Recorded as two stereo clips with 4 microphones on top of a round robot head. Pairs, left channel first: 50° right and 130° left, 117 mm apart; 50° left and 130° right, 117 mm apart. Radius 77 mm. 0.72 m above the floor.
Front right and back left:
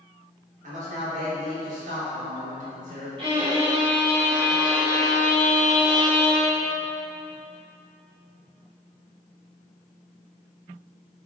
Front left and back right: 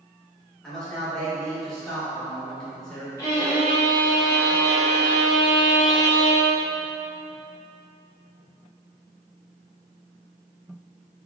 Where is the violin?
105° left, 1.5 m.